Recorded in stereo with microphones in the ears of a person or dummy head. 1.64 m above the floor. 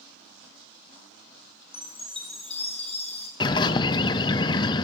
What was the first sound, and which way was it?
A chime, 30° left (ahead or behind).